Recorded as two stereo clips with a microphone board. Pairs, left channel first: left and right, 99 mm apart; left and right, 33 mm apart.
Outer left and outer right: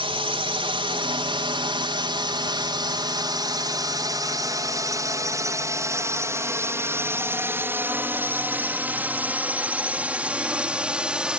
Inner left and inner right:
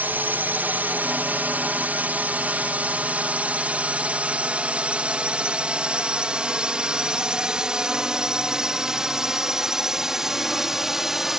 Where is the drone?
60° right (ahead or behind); by 11.4 s 10° right (ahead or behind).